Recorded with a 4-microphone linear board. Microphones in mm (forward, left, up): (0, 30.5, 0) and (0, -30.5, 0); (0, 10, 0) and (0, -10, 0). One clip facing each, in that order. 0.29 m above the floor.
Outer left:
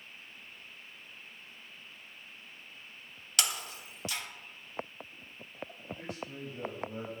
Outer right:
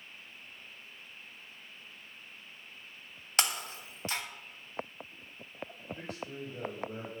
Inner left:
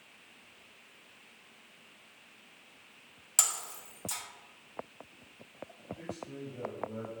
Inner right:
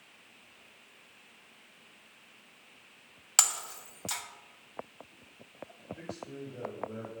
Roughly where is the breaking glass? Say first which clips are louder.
Outer right 2 dB, inner right 3 dB; right.